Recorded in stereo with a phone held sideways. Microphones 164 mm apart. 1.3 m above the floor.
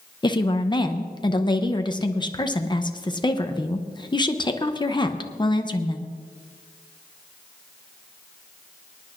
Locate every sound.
0.2 s a woman speaking: 25° left (ahead or behind), 0.7 m